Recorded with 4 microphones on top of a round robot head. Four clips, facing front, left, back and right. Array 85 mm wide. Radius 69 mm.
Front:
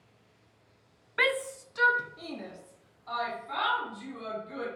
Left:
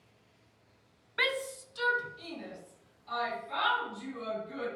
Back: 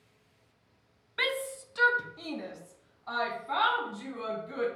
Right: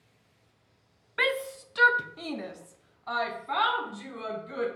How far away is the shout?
About 0.5 m.